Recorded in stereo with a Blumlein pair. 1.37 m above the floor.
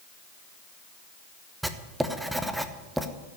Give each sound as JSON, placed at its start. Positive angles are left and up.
{"t": 1.6, "sound": "writing", "azimuth_deg": -5, "distance_m": 1.0}